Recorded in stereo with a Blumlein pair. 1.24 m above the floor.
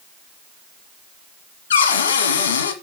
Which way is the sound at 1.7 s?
60° left.